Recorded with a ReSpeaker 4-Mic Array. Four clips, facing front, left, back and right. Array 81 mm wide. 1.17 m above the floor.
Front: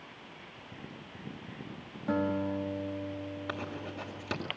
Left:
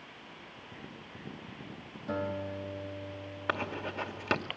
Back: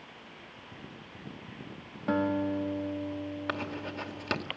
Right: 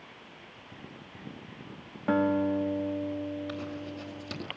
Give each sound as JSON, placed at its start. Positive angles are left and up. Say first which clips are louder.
{"t": 2.1, "sound": "a guitar", "louder": "right 10 dB, back 2 dB", "azimuth_deg": -110, "distance_m": 2.5}
{"t": 3.5, "sound": "writing", "louder": "left 2 dB, back 3 dB", "azimuth_deg": 110, "distance_m": 2.5}